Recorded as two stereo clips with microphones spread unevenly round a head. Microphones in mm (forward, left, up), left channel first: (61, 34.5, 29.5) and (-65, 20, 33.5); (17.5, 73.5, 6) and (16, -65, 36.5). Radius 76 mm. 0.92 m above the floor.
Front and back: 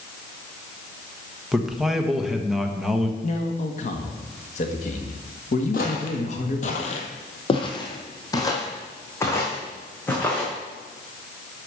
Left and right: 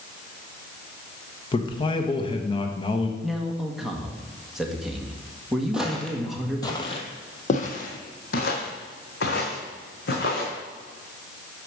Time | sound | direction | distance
1.5 | a man speaking | 100° left | 1.2 m
3.2 | a man speaking | 5° left | 1.6 m
5.7 | footsteps | 15° right | 1.5 m